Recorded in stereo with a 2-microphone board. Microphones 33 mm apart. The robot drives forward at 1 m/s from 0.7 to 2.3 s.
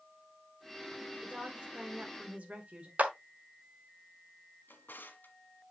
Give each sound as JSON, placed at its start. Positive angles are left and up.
{"t": 1.2, "sound": "a woman speaking", "side_deg": -35, "distance_m": 1.9}
{"t": 3.0, "sound": "a clap", "side_deg": -50, "distance_m": 1.1}
{"t": 4.7, "sound": "a drawer", "side_deg": 80, "distance_m": 1.5}